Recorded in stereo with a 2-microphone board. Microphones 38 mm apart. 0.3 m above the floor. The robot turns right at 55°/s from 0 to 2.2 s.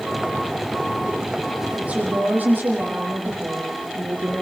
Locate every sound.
1.8 s a woman speaking: 30° right (ahead or behind), 8 m; by 4.4 s 50° right (ahead or behind), 8 m